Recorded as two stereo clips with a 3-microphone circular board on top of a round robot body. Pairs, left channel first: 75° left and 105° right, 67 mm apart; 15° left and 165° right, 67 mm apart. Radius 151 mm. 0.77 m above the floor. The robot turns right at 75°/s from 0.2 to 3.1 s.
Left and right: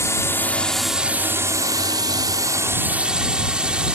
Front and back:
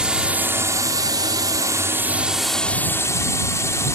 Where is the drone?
120° left; by 4.0 s 30° right.